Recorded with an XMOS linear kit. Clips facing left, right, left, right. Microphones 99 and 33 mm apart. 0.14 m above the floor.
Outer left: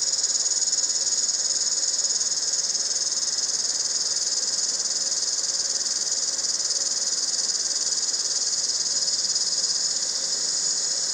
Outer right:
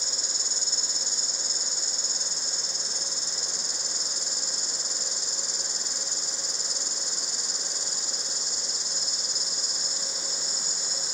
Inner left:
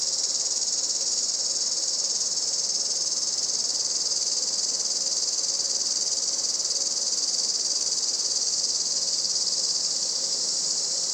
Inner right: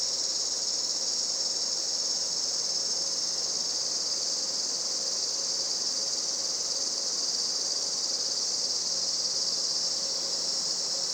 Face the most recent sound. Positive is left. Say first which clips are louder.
# even, inner left 3 dB
turn(degrees=65)  # may be behind; listen again after turning